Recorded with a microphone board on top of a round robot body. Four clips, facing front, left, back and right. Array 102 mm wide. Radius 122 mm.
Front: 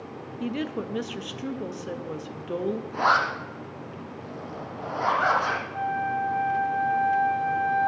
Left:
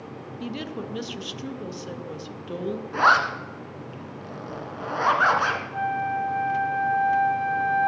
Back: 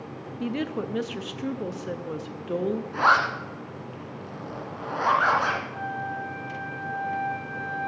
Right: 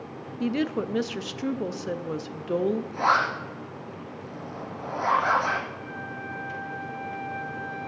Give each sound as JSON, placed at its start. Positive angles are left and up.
{"t": 0.4, "sound": "a woman speaking", "azimuth_deg": -100, "distance_m": 0.6}
{"t": 2.9, "sound": "a zipper", "azimuth_deg": 110, "distance_m": 1.8}
{"t": 5.7, "sound": "a flute", "azimuth_deg": 85, "distance_m": 1.1}